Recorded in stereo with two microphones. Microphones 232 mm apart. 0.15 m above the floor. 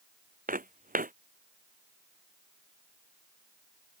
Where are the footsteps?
35° right (ahead or behind).